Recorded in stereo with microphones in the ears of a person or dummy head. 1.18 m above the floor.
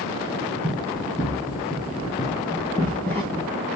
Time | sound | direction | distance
0.6 | running footsteps | centre (ahead or behind) | 2 m